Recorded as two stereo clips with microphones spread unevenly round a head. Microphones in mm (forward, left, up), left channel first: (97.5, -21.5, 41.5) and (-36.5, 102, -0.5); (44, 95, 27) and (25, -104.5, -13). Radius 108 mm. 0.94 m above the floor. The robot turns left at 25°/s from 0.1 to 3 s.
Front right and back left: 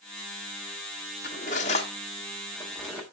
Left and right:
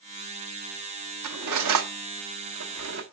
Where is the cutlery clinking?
95° right, 0.9 m; by 3.0 s 135° right, 0.9 m.